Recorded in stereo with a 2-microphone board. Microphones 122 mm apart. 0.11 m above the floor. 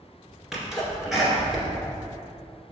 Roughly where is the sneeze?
Centre.